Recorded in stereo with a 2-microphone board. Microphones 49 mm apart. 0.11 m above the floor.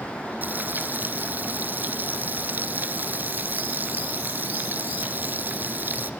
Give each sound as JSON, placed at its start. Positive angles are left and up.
{"t": 0.4, "sound": "frying", "side_deg": -40, "distance_m": 0.9}